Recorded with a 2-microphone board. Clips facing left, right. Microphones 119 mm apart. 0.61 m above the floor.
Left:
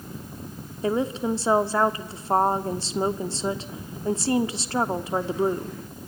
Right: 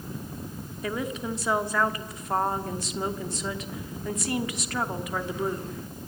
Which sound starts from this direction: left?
A woman speaking, at 0.8 s.